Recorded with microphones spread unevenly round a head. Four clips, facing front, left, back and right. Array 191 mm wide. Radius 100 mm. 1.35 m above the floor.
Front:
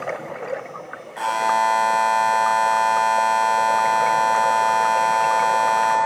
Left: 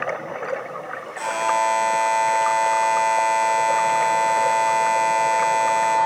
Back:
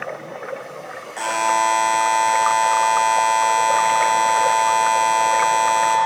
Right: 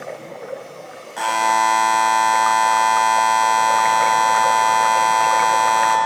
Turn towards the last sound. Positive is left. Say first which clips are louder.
# right 4 dB, even
turn(degrees=-105)